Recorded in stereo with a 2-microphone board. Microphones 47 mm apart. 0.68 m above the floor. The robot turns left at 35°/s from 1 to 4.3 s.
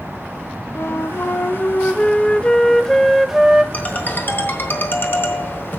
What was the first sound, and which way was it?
A flute, 75° left.